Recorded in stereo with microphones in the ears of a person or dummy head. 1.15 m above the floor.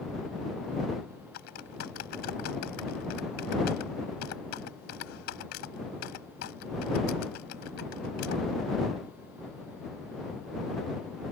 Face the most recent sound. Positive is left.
turn(degrees=65)  # may be behind; listen again after turning